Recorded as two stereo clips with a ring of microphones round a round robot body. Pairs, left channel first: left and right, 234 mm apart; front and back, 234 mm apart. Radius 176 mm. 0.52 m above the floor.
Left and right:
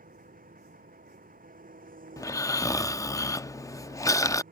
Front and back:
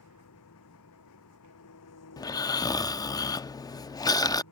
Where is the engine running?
35° right.